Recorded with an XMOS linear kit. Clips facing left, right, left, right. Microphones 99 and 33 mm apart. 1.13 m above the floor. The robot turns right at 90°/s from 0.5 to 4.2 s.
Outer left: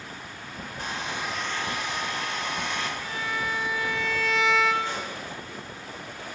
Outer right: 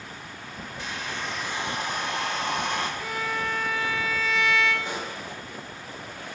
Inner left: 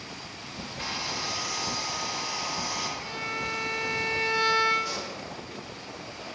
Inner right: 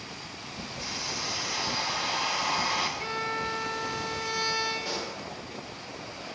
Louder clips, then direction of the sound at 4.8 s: Even, even; 20° right (ahead or behind).